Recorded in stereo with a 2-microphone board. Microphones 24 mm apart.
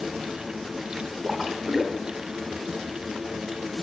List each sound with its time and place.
1.2 s a splash: 20° right (ahead or behind), 0.9 m